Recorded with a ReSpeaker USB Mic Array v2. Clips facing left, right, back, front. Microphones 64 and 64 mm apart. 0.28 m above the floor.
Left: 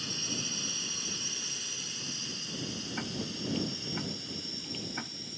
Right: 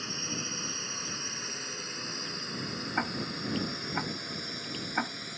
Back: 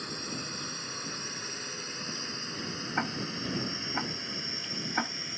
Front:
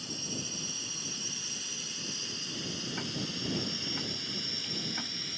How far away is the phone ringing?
I don't hear a phone ringing.